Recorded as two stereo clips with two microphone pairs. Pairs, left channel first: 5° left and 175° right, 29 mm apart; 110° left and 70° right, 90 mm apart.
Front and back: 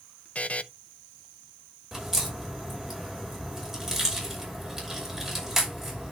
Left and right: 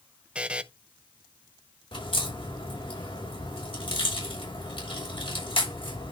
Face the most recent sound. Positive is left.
turn(degrees=105)